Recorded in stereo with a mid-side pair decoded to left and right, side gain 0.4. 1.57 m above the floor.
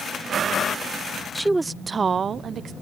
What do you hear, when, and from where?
1.4 s a woman speaking: 5° right; by 2.7 s 65° right